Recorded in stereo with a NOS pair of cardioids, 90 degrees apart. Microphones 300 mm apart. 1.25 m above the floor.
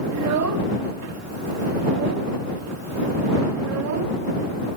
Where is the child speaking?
65° right.